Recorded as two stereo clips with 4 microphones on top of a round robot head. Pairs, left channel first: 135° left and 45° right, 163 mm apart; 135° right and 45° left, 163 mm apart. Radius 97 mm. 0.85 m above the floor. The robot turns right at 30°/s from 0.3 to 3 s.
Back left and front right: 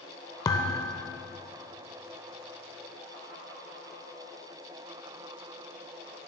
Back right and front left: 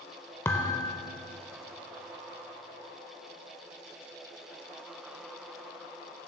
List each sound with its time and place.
0.5 s a thud: 170° left, 0.5 m; by 1.0 s 175° right, 0.5 m